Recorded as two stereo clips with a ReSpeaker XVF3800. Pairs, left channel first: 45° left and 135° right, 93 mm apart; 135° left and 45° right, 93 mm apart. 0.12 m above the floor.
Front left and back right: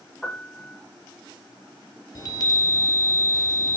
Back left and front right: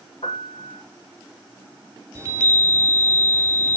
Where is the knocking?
No knocking in this recording.